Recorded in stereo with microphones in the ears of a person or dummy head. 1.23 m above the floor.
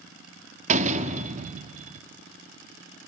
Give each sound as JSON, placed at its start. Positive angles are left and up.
{"t": 0.7, "sound": "a door slam", "side_deg": -35, "distance_m": 1.6}